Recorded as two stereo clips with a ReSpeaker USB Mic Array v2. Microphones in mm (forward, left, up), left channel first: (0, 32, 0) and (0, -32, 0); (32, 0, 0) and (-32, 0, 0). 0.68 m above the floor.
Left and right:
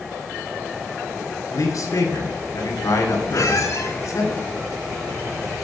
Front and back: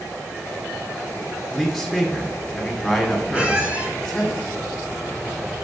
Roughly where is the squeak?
Behind left.